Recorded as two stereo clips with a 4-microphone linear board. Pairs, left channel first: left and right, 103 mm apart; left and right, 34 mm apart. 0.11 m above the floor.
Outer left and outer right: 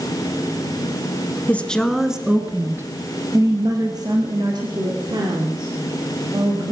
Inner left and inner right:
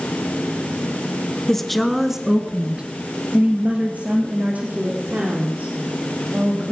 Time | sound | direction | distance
1.5 | a woman speaking | 15° left (ahead or behind) | 1.2 m